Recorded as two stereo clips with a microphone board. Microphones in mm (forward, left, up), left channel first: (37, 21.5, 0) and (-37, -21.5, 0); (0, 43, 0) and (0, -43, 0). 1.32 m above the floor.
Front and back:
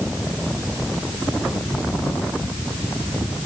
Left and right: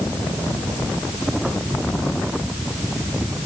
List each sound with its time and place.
Only background noise.